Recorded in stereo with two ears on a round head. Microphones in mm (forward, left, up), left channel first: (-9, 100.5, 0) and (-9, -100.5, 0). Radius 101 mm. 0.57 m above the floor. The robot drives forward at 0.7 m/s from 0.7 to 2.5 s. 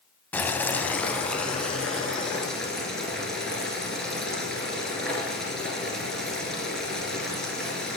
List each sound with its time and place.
0.3 s boiling: 10° left (ahead or behind), 0.6 m; by 8.0 s 5° left (ahead or behind), 1.8 m